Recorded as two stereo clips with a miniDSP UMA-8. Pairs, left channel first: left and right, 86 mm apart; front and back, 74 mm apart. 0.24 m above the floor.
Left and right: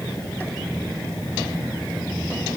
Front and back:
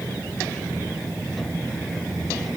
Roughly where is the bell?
I don't hear a bell.